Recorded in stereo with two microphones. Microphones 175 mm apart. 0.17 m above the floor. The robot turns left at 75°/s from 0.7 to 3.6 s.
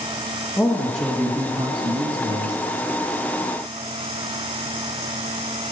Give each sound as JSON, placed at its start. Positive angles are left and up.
{"t": 0.6, "sound": "a man speaking", "azimuth_deg": 20, "distance_m": 1.2}